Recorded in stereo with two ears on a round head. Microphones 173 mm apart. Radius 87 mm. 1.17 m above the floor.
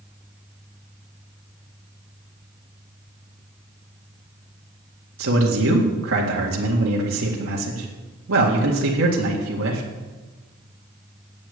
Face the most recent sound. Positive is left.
turn(degrees=-75)  # may be behind; listen again after turning